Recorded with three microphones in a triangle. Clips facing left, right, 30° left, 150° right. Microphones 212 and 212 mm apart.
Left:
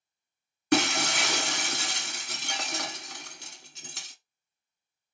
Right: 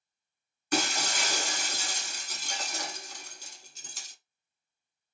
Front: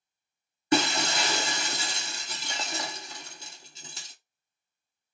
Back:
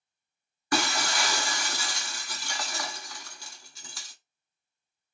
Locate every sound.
0.7 s breaking glass: 95° left, 0.8 m